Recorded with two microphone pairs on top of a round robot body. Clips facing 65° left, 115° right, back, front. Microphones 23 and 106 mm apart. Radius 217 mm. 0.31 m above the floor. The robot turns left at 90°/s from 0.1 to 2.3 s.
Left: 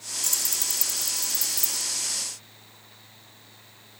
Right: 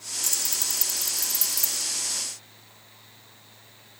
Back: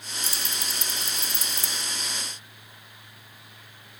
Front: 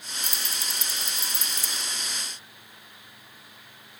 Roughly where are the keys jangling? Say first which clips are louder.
Even, back 1 dB; ahead.